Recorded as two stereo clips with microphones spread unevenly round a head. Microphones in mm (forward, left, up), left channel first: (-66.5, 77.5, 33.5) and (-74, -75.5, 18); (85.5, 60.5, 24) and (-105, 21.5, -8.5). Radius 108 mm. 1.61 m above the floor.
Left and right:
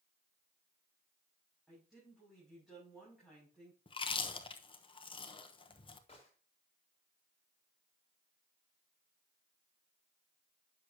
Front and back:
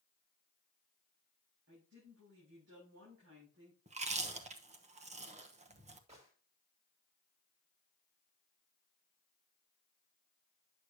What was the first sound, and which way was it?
A woman speaking, straight behind.